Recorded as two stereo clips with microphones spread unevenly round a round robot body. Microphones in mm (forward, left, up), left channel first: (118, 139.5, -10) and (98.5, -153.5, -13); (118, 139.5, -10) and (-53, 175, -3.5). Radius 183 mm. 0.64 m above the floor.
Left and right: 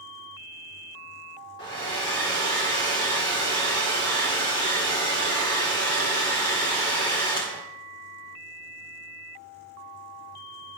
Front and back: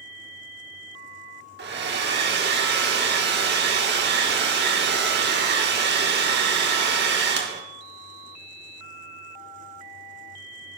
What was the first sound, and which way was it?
A hair dryer, 165° left.